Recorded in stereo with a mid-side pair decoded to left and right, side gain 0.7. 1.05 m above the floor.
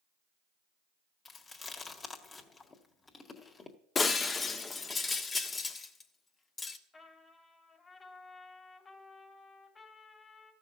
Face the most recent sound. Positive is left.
turn(degrees=25)